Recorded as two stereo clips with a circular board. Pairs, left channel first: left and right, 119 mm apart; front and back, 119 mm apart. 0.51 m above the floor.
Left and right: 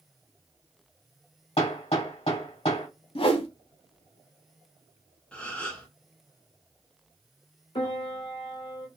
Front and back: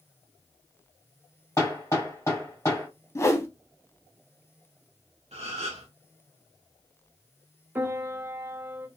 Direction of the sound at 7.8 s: 110° left.